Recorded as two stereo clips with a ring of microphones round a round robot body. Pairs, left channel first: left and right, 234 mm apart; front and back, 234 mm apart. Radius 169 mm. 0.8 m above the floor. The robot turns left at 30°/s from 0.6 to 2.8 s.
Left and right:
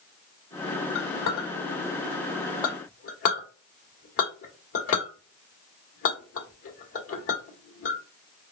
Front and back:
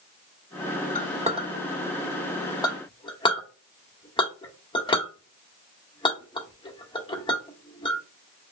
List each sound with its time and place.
0.9 s a clink: 125° left, 1.6 m; by 8.0 s 70° left, 1.6 m